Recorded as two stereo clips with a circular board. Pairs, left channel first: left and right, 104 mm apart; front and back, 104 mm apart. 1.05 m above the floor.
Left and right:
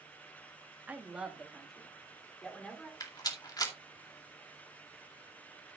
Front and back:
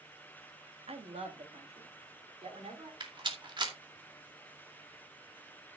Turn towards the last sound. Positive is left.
turn(degrees=140)